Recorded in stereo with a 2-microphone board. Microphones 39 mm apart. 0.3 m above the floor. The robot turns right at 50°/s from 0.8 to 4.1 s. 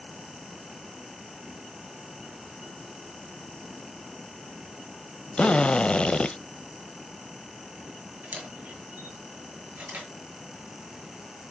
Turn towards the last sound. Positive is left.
turn(degrees=-40)  # may be behind; listen again after turning